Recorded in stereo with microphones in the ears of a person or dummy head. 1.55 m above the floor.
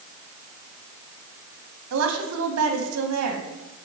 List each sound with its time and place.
1.9 s a woman speaking: 80° right, 1.5 m